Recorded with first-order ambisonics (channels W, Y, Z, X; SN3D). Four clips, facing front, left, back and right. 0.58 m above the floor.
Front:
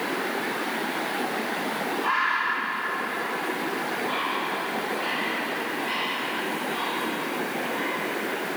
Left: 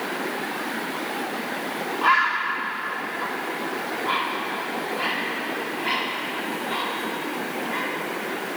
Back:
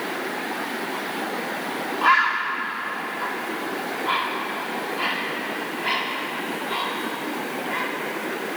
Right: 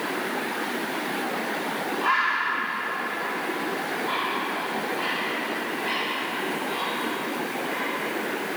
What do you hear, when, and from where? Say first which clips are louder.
2.0 s a bird: left 4 dB, back 6 dB; 150° left, 0.8 m